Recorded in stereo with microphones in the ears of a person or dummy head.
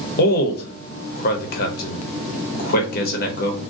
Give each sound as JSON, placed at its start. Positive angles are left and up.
{"t": 0.2, "sound": "a man speaking", "side_deg": 50, "distance_m": 0.8}